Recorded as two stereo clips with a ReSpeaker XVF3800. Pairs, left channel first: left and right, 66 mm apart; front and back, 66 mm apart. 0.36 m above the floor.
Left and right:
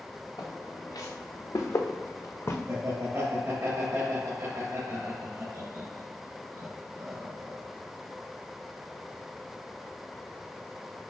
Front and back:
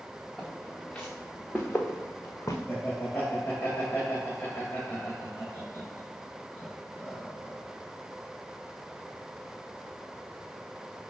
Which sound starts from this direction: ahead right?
Laughter, at 2.7 s.